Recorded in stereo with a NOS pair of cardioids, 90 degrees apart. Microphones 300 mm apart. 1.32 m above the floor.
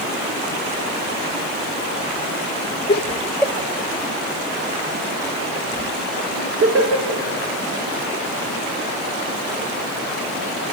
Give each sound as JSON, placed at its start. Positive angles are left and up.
{"t": 2.9, "sound": "laughter", "azimuth_deg": 40, "distance_m": 1.0}